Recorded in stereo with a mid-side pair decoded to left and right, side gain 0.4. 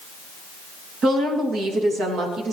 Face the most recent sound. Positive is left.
turn(degrees=-70)